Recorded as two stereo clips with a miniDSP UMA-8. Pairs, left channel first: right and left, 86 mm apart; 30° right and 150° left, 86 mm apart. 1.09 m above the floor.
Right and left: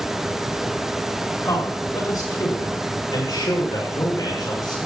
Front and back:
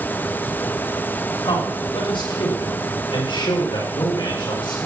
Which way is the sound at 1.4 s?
40° right.